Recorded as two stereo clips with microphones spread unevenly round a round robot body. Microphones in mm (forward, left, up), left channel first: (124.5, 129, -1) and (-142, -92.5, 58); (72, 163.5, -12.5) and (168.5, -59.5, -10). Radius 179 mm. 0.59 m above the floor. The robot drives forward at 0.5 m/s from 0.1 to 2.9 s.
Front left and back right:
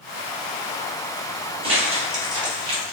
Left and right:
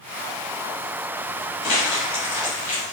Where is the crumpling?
145° left, 1.4 m; by 2.9 s 155° left, 2.0 m.